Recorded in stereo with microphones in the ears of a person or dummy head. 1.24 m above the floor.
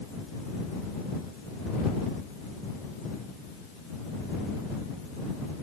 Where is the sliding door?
No sliding door in this recording.